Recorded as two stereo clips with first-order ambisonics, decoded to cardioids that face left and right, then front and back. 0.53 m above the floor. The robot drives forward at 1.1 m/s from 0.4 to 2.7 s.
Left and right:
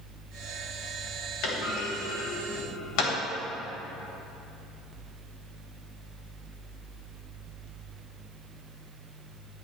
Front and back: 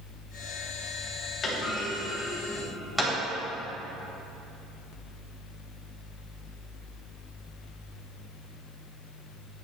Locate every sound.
1.4 s a clunk: 65° left, 3.5 m; by 3.1 s 90° left, 3 m